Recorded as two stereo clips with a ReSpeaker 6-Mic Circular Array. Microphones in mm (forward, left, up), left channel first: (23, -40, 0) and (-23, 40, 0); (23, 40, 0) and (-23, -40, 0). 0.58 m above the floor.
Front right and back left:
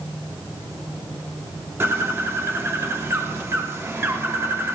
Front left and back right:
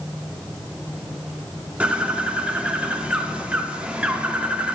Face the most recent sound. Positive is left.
turn(degrees=170)